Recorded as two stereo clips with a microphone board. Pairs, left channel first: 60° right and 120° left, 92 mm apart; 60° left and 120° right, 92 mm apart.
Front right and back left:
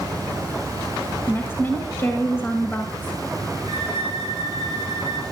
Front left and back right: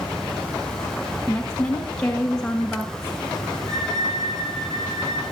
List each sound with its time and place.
1.3 s a woman speaking: 15° right, 1.3 m
3.7 s a violin: 80° right, 6 m